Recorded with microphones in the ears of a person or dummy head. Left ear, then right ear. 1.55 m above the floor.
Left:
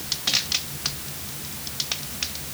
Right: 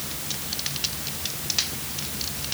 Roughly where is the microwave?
I don't hear a microwave.